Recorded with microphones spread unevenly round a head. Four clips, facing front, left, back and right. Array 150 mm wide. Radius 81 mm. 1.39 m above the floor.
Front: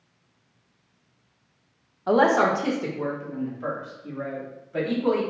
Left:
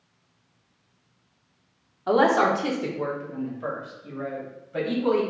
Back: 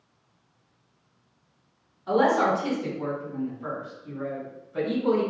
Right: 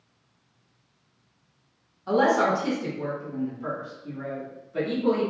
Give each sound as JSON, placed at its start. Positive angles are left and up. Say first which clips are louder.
{"t": 2.1, "sound": "a woman speaking", "louder": "left 2 dB, front 2 dB", "azimuth_deg": 40, "distance_m": 0.9}